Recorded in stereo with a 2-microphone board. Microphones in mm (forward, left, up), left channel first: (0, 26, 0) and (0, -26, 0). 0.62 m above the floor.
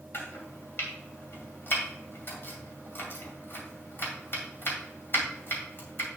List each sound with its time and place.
0.1 s chopping: 50° left (ahead or behind), 2.5 m